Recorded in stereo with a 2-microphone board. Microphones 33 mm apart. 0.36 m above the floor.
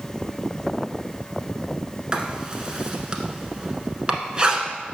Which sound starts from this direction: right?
Writing, at 2.1 s.